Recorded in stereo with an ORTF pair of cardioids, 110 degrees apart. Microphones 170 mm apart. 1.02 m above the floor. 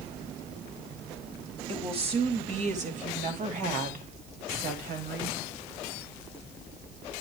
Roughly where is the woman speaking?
Ahead right.